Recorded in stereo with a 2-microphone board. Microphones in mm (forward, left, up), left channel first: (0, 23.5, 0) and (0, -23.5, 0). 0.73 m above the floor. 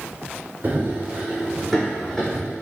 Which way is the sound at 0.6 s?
40° right (ahead or behind).